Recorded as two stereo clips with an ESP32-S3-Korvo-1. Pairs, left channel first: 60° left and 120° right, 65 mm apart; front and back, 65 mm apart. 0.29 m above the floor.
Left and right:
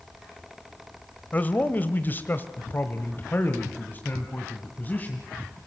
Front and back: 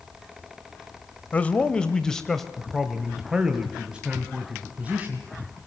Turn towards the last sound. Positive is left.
turn(degrees=115)